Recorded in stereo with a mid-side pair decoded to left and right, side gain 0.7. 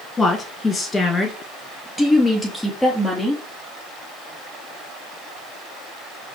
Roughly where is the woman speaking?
Ahead.